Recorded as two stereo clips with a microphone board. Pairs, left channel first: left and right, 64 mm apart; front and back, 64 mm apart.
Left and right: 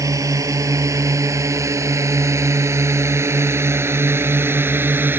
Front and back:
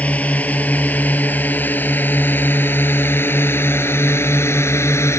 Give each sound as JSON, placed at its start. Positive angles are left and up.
{"t": 0.0, "sound": "a drone", "azimuth_deg": -65}